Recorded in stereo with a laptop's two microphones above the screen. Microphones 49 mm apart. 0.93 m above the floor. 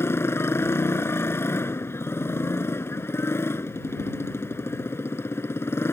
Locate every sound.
0.0 s a motorcycle: 60° left (ahead or behind)